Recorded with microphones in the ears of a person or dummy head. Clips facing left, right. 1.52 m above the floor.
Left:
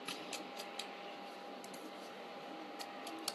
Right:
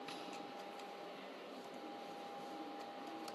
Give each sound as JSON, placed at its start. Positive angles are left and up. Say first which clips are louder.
{"t": 0.1, "sound": "tapping", "louder": "left 1 dB", "side_deg": 50, "distance_m": 0.6}